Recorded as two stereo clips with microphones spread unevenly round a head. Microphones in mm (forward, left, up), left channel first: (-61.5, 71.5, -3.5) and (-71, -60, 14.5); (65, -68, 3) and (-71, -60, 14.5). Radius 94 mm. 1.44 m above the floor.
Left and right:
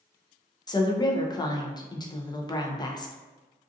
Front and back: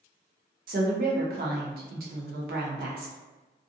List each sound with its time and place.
0.7 s a woman speaking: 150° left, 0.6 m